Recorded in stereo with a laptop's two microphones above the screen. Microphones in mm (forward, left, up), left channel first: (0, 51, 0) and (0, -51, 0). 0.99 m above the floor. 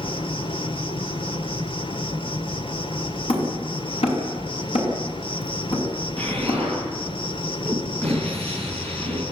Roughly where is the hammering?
Left.